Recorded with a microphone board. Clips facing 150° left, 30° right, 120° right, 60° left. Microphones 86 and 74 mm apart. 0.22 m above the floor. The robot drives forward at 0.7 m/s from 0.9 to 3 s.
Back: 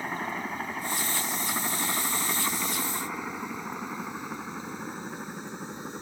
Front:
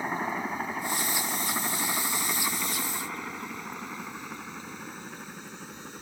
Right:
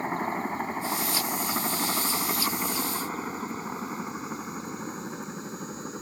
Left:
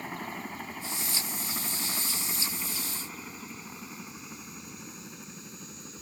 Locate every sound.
0.0 s a helicopter: 100° right; by 6.0 s 145° right